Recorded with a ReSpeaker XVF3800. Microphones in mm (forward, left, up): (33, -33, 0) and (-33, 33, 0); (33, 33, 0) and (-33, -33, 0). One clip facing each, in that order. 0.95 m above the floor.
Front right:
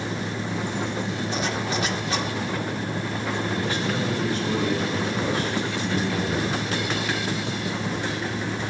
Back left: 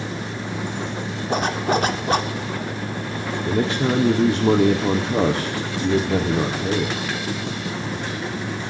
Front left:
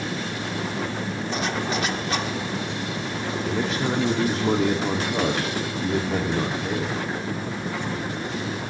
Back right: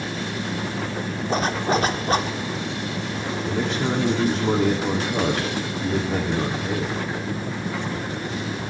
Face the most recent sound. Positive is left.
turn(degrees=135)